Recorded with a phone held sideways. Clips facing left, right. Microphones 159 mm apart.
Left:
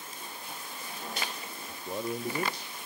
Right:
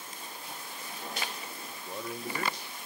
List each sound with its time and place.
1.7 s a man speaking: 20° left (ahead or behind), 0.5 m